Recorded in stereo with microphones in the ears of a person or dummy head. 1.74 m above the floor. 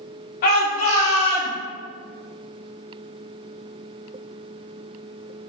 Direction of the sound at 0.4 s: 50° left (ahead or behind).